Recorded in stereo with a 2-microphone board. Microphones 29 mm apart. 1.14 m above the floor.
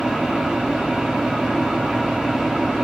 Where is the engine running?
25° right (ahead or behind), 1.1 m.